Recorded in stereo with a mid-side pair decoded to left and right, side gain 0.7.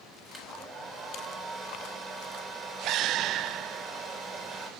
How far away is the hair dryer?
About 3.5 m.